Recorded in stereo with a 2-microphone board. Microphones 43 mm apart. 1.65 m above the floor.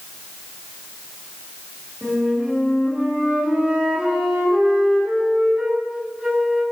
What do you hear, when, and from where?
2.0 s a flute: 20° right (ahead or behind), 2 m